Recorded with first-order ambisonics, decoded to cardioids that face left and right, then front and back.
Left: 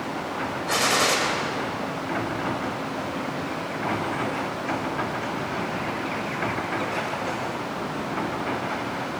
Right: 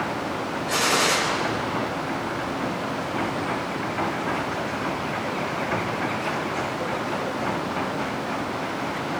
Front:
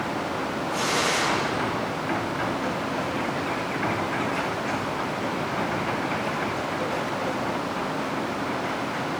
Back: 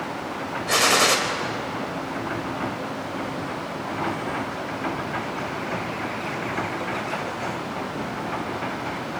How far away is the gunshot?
About 4 m.